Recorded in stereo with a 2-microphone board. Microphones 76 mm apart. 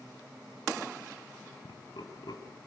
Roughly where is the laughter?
Left.